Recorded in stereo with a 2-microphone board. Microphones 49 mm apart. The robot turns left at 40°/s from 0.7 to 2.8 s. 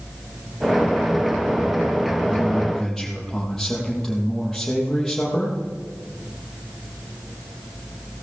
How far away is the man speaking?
About 5.5 m.